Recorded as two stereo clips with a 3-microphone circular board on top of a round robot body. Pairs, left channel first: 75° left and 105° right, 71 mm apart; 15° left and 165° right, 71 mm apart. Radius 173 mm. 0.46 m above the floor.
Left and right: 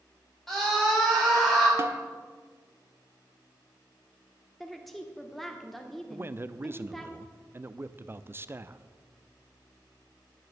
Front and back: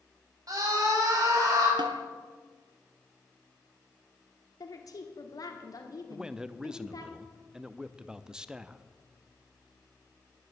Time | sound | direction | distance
0.5 | a scream | 160° left | 5.5 m
1.8 | a snare drum | 160° right | 0.8 m
4.6 | a woman speaking | 10° right | 1.4 m
6.1 | a man speaking | 95° right | 0.7 m